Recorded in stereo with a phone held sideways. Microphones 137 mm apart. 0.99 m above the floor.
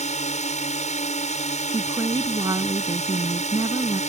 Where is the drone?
55° left (ahead or behind).